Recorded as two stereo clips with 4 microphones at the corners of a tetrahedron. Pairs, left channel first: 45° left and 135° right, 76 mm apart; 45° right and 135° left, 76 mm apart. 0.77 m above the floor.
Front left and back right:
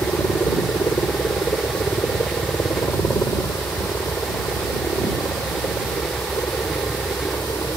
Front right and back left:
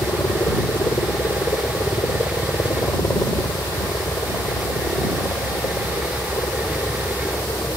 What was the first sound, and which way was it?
A helicopter, straight ahead.